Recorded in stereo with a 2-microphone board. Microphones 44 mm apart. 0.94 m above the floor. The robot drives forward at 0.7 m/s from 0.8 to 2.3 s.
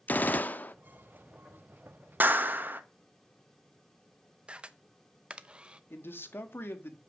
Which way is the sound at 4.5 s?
25° right (ahead or behind).